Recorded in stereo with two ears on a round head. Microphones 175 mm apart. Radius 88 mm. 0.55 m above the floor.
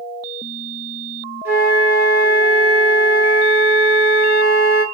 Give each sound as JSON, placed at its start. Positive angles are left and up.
{"t": 1.4, "sound": "a flute", "side_deg": -10, "distance_m": 0.9}